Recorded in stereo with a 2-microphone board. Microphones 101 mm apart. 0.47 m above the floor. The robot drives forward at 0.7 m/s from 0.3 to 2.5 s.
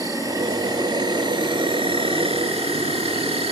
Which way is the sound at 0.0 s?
35° right (ahead or behind).